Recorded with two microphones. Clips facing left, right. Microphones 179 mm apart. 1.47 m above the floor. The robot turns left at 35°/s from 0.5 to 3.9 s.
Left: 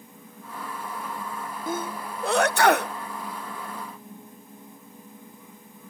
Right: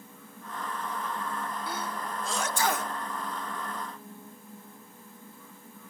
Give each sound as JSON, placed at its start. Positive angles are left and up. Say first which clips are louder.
{"t": 1.7, "sound": "a sneeze", "louder": "left 4 dB", "side_deg": 50, "distance_m": 0.6}